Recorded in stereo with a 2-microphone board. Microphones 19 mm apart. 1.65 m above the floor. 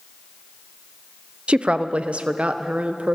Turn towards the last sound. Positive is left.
turn(degrees=-75)  # may be behind; listen again after turning